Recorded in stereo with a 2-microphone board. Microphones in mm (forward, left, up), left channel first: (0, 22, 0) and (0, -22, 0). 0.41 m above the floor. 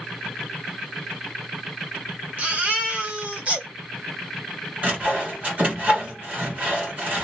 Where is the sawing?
30° right (ahead or behind), 1.7 m.